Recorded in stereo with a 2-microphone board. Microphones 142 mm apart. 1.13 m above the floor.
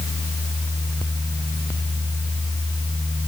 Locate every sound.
Only background noise.